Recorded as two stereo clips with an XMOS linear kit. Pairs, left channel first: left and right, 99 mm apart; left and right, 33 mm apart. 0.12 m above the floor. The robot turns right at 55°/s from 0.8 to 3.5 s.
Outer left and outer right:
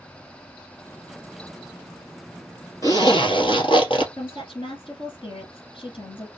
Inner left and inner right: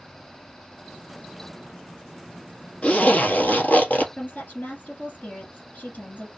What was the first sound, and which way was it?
A zipper, 40° left.